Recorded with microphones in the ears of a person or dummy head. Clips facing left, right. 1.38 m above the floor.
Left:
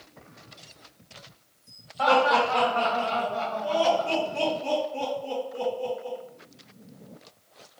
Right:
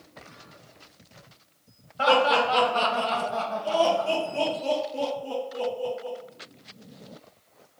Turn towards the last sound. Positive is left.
turn(degrees=-30)  # may be behind; listen again after turning